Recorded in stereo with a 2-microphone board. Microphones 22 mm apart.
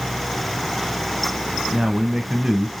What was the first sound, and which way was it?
A man speaking, 30° right (ahead or behind).